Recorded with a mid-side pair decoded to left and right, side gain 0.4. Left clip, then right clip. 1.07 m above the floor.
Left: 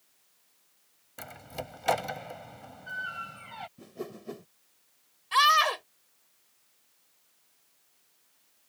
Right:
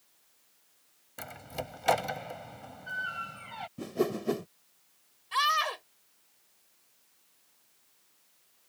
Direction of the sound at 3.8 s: 65° right.